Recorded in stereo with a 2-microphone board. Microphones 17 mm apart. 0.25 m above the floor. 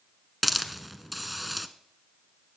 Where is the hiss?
10° right (ahead or behind), 0.7 m.